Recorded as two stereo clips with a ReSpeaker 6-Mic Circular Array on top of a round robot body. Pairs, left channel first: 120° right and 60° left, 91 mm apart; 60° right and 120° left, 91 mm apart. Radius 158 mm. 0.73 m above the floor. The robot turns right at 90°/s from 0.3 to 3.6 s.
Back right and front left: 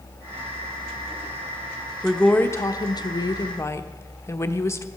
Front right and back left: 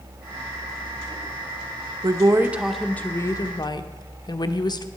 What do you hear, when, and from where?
2.0 s a woman speaking: 145° left, 1.1 m; by 4.8 s 70° right, 1.1 m